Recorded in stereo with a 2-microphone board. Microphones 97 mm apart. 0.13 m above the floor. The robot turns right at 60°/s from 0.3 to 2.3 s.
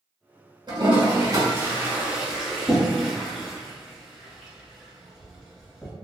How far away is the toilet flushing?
About 1.6 m.